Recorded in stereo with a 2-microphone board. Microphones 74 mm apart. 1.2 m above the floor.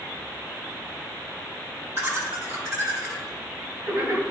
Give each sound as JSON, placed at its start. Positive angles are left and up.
{"t": 2.0, "sound": "laughter", "side_deg": -40, "distance_m": 3.0}